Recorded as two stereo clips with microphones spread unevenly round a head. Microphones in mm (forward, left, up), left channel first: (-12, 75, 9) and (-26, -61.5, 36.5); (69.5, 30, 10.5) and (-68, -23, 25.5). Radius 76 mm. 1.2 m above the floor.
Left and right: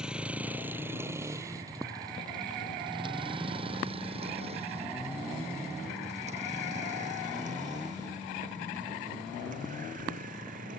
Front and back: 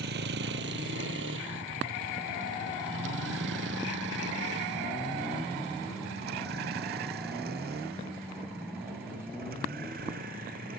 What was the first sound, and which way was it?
A vehicle, straight behind.